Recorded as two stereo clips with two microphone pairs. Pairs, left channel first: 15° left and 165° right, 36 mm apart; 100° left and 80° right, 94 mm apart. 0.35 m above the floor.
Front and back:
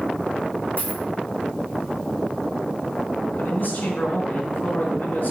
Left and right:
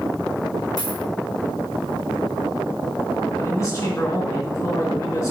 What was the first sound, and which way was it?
A dropped coin, 60° left.